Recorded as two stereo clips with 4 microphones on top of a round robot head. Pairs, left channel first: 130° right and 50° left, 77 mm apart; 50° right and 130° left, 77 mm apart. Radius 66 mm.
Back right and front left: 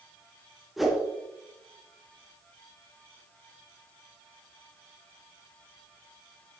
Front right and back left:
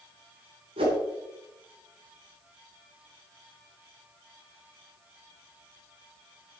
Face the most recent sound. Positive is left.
turn(degrees=140)